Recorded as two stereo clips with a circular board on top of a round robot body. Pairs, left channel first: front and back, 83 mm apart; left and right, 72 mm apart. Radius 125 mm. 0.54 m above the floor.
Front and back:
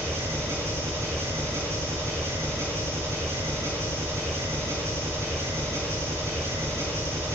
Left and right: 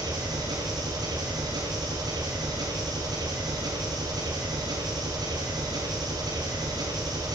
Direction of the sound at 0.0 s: 120° right.